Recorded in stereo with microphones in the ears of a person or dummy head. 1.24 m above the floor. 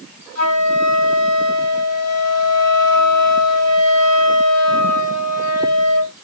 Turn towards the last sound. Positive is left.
turn(degrees=-80)